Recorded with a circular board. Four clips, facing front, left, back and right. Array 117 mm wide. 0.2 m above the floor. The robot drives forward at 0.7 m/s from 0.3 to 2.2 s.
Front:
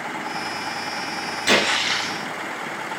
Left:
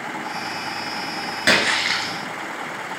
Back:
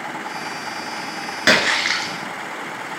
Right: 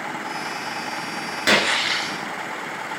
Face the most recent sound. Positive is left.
turn(degrees=175)